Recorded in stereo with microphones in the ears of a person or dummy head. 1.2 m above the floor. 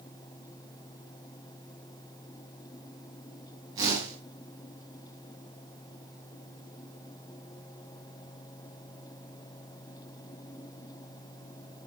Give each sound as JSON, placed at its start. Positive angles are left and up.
{"t": 3.8, "sound": "a whoosh", "side_deg": -20, "distance_m": 4.0}